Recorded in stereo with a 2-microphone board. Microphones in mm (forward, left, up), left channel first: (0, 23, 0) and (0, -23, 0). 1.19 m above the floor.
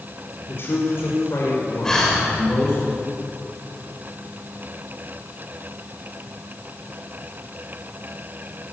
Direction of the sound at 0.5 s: 55° left (ahead or behind).